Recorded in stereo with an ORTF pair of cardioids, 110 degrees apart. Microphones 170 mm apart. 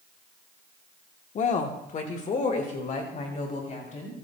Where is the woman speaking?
45° left, 1.2 m.